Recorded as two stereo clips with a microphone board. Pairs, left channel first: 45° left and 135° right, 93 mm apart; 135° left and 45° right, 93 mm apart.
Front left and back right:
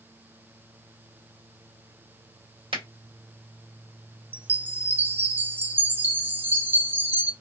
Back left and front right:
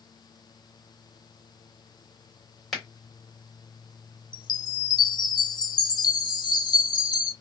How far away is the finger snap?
About 1.6 m.